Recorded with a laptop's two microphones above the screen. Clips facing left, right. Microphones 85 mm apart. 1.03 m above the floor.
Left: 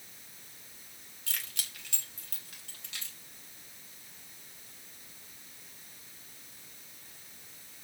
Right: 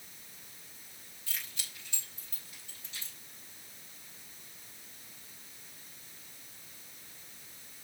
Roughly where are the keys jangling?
Left.